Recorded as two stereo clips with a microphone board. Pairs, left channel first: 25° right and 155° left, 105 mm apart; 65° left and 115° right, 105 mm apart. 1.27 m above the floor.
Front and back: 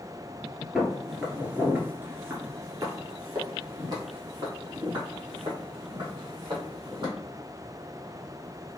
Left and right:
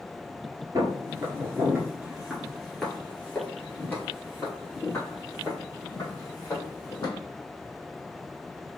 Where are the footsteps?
115° right, 1.4 m; by 7.1 s 120° left, 3 m.